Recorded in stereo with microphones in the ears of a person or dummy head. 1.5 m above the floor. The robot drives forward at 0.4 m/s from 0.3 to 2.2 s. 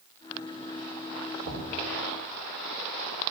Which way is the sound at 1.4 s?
70° right (ahead or behind).